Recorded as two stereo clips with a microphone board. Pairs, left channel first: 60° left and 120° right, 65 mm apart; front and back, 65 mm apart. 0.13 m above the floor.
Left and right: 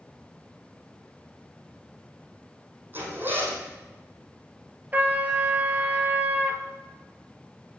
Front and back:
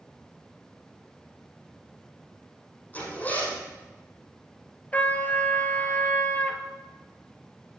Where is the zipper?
65° right, 4.5 m.